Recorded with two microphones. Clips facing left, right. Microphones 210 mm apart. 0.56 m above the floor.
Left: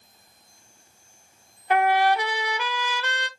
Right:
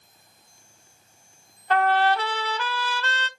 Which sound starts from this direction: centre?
A trumpet, at 1.7 s.